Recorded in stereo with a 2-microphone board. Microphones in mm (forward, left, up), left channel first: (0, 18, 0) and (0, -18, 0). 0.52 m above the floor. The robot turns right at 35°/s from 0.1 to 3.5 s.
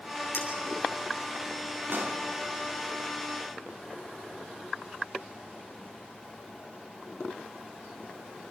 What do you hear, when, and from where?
0.3 s a clink: 85° left, 7.5 m
1.9 s a pop: 70° right (ahead or behind), 3.5 m; by 2.2 s 80° right, 3.5 m